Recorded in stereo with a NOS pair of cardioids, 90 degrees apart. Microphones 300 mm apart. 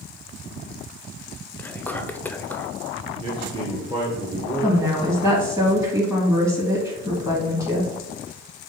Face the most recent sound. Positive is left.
turn(degrees=-10)